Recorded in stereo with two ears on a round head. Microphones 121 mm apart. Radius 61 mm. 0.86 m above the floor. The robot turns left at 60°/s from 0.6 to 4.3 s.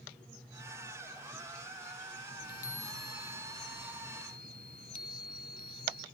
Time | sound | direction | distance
2.4 | a chime | 40° left | ?